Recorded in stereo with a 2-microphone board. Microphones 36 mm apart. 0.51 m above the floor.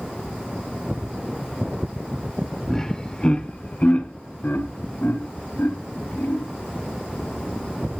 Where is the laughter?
10° left (ahead or behind), 1.3 m; by 6.4 s 75° left (ahead or behind), 3 m.